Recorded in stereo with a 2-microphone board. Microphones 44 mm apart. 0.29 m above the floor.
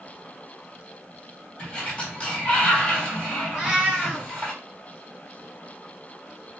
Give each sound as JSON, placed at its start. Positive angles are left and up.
{"t": 1.6, "sound": "a sliding door", "side_deg": 25, "distance_m": 1.3}
{"t": 3.5, "sound": "a cat meowing", "side_deg": -15, "distance_m": 1.2}